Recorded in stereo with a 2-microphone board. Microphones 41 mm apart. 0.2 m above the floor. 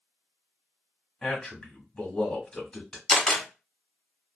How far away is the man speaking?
About 1.3 m.